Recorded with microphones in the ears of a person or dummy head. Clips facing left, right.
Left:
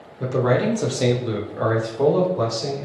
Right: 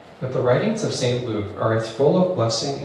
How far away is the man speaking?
About 1.0 m.